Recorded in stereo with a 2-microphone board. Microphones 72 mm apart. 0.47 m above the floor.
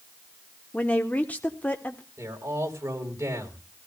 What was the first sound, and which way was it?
A woman speaking, 20° left (ahead or behind).